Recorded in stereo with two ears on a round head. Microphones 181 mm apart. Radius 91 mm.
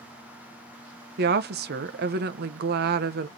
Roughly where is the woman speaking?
Right.